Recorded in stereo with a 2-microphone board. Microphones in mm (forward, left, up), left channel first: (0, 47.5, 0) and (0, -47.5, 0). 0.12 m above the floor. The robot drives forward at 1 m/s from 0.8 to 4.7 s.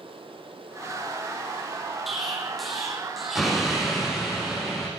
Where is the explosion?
Centre (ahead or behind), 3.5 m.